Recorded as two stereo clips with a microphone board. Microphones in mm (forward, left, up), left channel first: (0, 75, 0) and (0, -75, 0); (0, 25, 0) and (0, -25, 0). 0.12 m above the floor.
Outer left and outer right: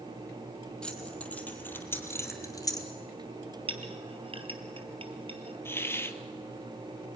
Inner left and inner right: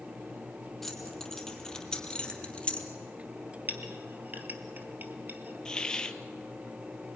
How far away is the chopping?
I don't hear chopping.